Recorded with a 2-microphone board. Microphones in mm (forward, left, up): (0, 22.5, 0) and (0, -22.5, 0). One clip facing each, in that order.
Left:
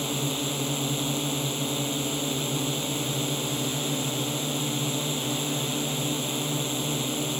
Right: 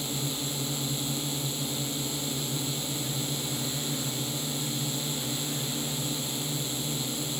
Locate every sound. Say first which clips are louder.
0.0 s a drone: left 5 dB; 55° left (ahead or behind)